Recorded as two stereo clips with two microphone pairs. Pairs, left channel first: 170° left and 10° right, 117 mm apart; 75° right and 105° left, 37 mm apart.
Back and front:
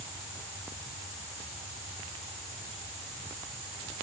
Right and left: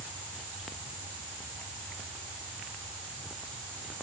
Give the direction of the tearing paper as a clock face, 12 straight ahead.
I don't hear tearing paper.